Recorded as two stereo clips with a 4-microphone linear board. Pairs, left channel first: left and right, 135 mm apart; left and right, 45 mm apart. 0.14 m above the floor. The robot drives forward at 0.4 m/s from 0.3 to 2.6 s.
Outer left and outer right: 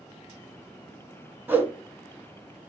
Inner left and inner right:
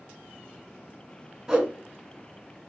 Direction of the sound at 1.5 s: 15° right (ahead or behind).